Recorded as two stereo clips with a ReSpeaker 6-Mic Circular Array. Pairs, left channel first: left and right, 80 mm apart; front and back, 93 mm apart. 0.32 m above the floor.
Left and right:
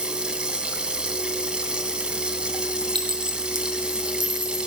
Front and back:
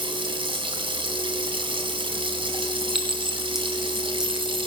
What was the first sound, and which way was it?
Running water, 170° right.